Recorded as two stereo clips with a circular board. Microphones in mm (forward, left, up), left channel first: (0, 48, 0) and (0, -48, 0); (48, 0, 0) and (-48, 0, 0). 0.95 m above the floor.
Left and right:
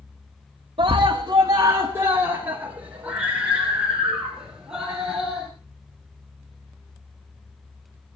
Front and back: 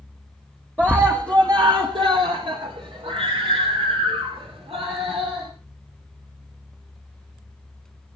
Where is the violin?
No violin in this recording.